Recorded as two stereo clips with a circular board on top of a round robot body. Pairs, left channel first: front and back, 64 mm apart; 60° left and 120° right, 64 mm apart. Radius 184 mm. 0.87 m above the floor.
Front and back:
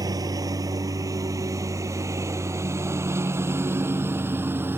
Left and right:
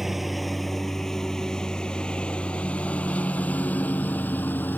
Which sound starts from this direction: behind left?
A lawn mower, at 0.0 s.